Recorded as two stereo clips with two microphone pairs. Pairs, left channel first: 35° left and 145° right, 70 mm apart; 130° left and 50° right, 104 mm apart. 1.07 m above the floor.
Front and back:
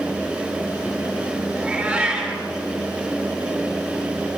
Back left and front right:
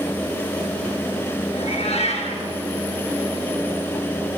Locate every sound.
1.6 s a cat meowing: 135° left, 9 m